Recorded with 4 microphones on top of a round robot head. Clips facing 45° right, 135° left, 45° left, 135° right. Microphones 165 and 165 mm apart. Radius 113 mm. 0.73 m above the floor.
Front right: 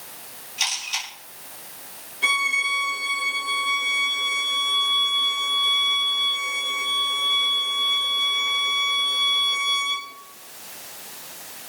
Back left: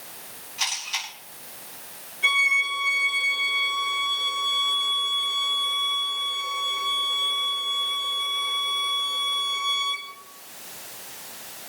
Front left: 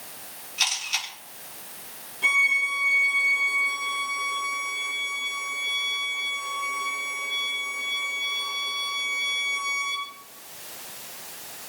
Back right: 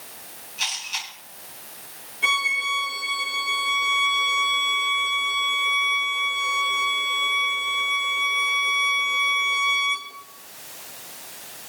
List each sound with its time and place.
0.6 s a camera shutter: 15° left, 6.5 m
2.2 s a violin: 55° right, 6.5 m